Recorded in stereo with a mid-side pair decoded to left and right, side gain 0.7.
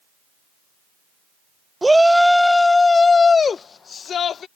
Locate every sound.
1.8 s a shout: 10° right; by 4.5 s 40° left